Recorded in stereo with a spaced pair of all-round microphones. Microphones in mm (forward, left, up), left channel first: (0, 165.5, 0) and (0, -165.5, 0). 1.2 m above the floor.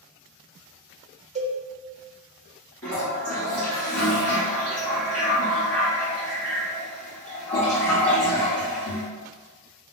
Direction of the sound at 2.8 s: 45° left (ahead or behind).